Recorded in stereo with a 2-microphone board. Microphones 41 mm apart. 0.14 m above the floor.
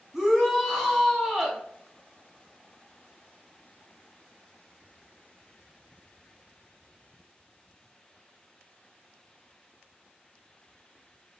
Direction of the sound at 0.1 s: 10° right (ahead or behind).